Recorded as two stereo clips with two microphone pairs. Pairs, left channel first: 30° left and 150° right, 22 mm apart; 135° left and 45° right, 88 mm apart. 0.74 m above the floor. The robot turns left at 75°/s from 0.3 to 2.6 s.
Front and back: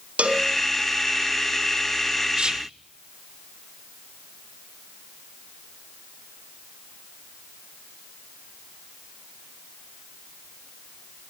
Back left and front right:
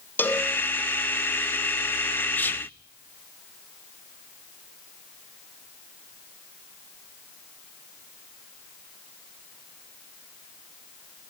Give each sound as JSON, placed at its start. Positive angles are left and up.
{"t": 0.2, "sound": "a cowbell", "azimuth_deg": -160, "distance_m": 3.0}
{"t": 2.4, "sound": "whispering", "azimuth_deg": -160, "distance_m": 0.6}